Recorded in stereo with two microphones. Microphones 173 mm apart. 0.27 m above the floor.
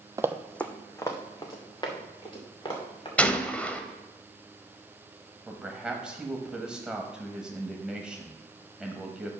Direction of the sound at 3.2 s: 10° left (ahead or behind).